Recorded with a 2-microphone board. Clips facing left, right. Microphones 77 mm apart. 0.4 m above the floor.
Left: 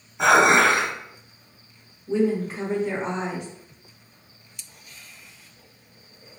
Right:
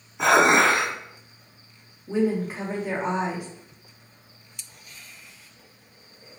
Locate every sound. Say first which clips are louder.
0.2 s dishes clattering: left 1 dB; centre (ahead or behind), 1.6 m
2.1 s a woman speaking: left 1 dB; 10° right (ahead or behind), 0.8 m